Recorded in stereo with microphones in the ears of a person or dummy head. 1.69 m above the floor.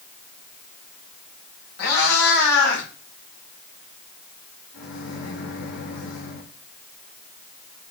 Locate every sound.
1.8 s a cat meowing: 50° left (ahead or behind), 4.5 m; by 2.9 s 55° left (ahead or behind), 5.5 m
4.7 s a microwave: 65° left (ahead or behind), 4.5 m